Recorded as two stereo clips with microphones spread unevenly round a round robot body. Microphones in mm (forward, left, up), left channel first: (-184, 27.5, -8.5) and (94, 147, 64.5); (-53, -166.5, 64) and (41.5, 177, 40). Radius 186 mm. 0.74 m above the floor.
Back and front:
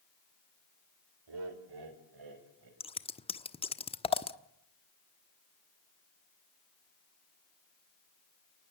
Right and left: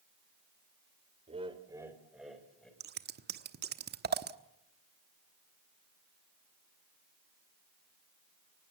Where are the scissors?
135° left, 1.1 m.